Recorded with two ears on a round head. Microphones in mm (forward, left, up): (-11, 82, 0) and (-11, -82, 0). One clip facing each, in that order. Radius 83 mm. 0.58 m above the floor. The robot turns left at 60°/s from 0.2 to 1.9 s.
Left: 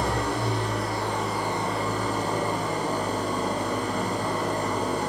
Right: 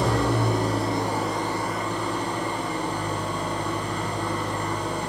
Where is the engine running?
115° right, 7 m; by 5.1 s 140° left, 7 m.